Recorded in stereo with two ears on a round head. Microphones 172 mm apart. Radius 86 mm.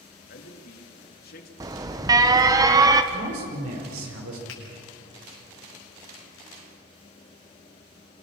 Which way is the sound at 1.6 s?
20° right (ahead or behind).